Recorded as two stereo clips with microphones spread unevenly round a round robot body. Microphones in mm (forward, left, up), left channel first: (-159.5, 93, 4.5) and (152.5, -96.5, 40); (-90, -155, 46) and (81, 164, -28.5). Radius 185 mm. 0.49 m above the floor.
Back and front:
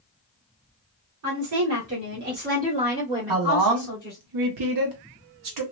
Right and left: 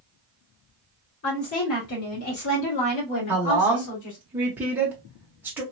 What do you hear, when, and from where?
1.2 s a woman speaking: 60° right, 1.8 m; by 4.2 s 145° right, 1.7 m
3.3 s a woman speaking: 10° right, 1.0 m